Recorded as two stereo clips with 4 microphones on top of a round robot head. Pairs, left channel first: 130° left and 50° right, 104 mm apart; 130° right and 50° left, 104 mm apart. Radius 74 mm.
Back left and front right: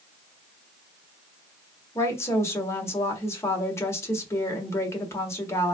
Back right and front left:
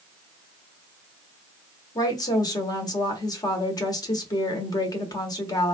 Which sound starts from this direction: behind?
A woman speaking, at 1.9 s.